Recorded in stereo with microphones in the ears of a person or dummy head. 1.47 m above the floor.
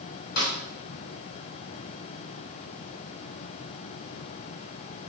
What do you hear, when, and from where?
0.4 s a snare drum: 55° left (ahead or behind), 4 m